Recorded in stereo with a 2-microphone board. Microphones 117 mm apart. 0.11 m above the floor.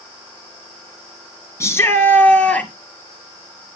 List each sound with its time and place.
1.6 s a shout: 25° left (ahead or behind), 1.3 m; by 2.7 s 10° left (ahead or behind), 1.7 m